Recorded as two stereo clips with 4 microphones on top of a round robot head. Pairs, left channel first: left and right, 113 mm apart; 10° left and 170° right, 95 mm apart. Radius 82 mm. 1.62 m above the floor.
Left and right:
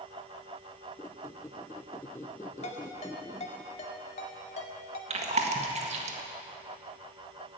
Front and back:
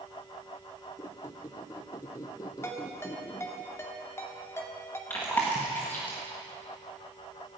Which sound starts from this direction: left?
A ringtone, at 2.6 s.